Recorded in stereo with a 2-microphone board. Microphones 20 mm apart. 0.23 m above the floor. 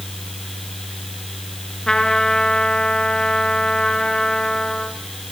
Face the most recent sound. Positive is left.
turn(degrees=35)  # may be behind; listen again after turning